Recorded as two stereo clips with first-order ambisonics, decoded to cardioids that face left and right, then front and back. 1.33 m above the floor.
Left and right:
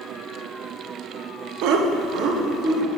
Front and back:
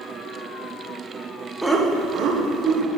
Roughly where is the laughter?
Right.